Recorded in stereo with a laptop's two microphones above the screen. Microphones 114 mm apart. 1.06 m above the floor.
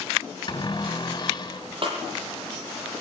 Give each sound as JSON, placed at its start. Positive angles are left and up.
{"t": 0.5, "sound": "a cupboard door", "side_deg": 40, "distance_m": 3.5}
{"t": 1.8, "sound": "a snare drum", "side_deg": -50, "distance_m": 8.0}